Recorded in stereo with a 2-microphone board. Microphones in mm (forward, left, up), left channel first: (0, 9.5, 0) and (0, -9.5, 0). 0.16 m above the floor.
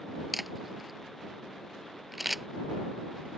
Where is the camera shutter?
5° right (ahead or behind).